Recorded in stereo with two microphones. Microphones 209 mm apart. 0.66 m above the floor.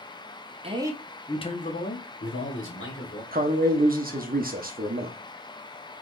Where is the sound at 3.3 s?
45° right (ahead or behind), 0.8 m.